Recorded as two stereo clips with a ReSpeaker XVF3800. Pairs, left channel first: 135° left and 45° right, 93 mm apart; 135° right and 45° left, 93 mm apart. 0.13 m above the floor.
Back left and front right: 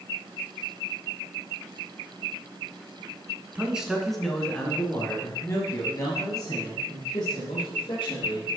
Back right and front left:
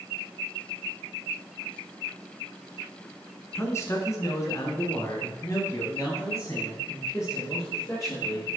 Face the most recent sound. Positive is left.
turn(degrees=165)